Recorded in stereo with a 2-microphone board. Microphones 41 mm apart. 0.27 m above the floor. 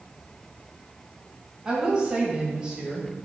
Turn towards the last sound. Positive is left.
turn(degrees=-20)  # may be behind; listen again after turning